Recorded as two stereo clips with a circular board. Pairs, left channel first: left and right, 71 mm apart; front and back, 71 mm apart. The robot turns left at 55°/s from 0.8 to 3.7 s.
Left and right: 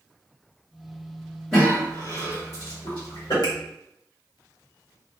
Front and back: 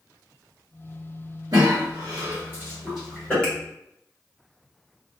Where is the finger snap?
80° left, 1.0 m; by 3.5 s 70° left, 1.0 m.